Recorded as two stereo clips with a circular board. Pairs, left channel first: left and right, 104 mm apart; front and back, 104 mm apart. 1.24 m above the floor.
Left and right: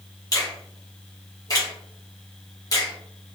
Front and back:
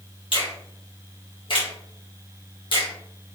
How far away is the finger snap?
About 1.8 m.